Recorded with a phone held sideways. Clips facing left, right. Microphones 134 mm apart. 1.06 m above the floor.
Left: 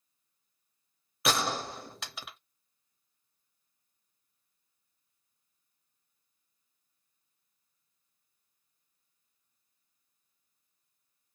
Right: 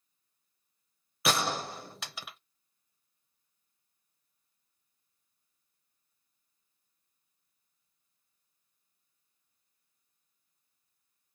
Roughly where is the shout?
I don't hear a shout.